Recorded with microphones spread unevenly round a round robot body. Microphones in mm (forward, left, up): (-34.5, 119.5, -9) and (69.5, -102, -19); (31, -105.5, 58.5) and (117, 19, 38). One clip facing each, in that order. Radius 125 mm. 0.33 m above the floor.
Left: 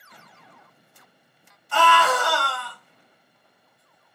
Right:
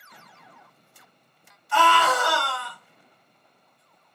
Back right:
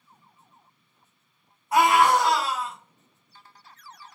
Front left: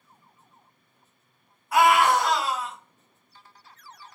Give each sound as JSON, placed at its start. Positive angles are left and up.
{"t": 1.7, "sound": "a scream", "azimuth_deg": 165, "distance_m": 1.4}